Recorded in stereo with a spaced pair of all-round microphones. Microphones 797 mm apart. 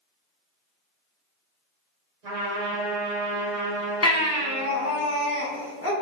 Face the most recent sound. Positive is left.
turn(degrees=20)  # may be behind; listen again after turning